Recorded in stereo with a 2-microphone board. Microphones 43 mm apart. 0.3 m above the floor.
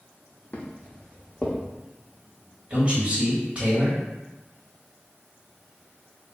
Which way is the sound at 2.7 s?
25° right (ahead or behind).